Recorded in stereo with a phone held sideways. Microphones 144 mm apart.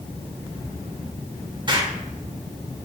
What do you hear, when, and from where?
1.7 s an explosion: 35° right (ahead or behind), 1.1 m